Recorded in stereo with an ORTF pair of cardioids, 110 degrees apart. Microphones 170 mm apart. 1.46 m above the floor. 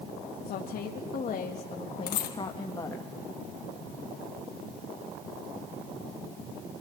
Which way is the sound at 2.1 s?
65° left.